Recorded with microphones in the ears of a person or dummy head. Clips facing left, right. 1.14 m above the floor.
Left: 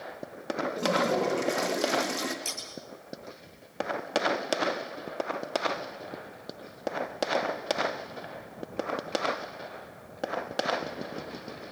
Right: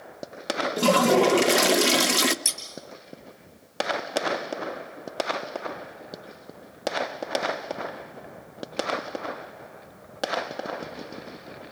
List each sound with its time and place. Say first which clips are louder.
0.8 s a toilet flushing: right 8 dB; 75° right (ahead or behind), 0.7 m
2.5 s scissors: left 1 dB; 10° right (ahead or behind), 1.6 m